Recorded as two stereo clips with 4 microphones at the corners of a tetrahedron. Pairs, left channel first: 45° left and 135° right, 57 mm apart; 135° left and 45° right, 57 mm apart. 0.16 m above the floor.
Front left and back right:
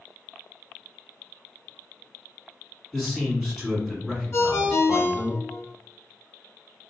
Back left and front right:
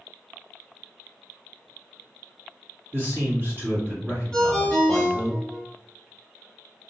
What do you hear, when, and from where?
2.9 s a man speaking: 40° right, 1.9 m
4.3 s a ringtone: 55° left, 0.9 m